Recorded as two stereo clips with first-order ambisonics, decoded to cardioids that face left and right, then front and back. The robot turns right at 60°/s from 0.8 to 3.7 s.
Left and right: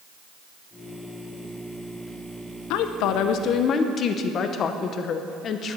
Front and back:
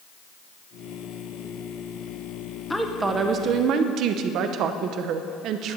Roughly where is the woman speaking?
Left.